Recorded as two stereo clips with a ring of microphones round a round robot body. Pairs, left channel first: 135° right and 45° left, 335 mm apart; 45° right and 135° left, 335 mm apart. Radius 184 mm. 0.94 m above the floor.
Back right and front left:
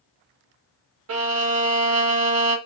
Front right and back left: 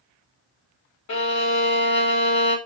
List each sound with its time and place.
1.1 s a violin: 5° right, 1.8 m